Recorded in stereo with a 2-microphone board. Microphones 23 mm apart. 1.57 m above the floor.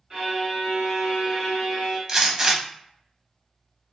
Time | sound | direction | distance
0.1 | a violin | 30° right (ahead or behind) | 2.0 m
2.1 | a gunshot | 25° right (ahead or behind) | 0.7 m